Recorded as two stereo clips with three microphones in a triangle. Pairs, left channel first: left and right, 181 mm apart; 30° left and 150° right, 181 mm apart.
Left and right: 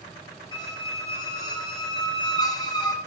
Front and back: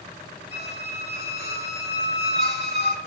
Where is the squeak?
25° left, 0.8 m.